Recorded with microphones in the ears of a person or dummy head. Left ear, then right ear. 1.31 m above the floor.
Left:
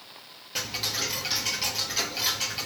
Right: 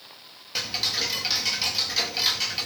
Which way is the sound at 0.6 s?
15° right (ahead or behind).